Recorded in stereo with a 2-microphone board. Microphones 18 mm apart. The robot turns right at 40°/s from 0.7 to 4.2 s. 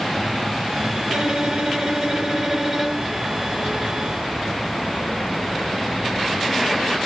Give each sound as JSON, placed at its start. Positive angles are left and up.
{"t": 1.1, "sound": "a violin", "azimuth_deg": -80, "distance_m": 2.5}